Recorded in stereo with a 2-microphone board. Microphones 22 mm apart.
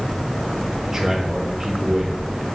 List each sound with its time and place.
0.8 s a man speaking: 15° right (ahead or behind), 4.5 m